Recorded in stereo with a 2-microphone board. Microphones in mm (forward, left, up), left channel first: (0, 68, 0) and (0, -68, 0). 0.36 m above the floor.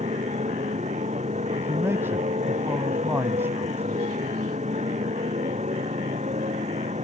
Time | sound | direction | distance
0.0 | a motorcycle | 60° right (ahead or behind) | ?
1.6 | a man speaking | 20° right (ahead or behind) | ?